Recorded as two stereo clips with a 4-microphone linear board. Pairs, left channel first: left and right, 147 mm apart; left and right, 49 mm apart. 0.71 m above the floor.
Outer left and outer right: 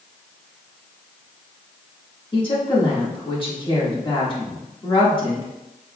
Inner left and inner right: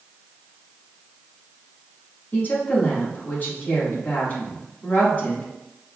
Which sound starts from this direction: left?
A woman speaking, at 2.3 s.